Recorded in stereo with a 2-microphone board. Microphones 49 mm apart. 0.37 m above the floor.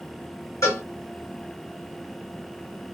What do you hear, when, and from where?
0.6 s a cowbell: 80° left, 1.5 m